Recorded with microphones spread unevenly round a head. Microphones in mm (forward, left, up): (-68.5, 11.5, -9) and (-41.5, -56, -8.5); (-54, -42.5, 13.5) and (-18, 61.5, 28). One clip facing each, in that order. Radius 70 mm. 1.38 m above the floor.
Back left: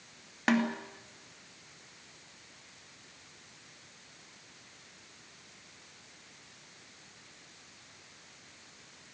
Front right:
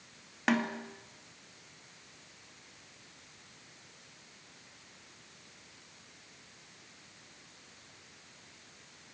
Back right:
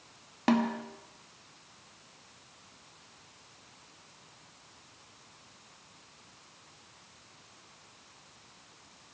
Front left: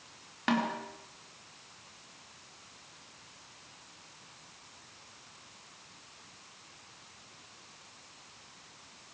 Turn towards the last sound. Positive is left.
turn(degrees=-160)